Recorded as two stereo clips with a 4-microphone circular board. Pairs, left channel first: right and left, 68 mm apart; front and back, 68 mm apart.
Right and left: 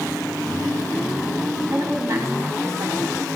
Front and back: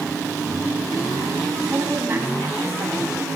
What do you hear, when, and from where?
1.7 s a woman speaking: 125° left, 2.5 m